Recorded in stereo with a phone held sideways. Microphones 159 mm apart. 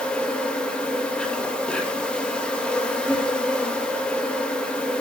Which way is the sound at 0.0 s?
5° left (ahead or behind).